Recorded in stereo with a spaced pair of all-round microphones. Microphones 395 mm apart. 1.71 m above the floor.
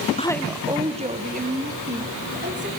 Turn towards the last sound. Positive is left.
turn(degrees=-25)  # may be behind; listen again after turning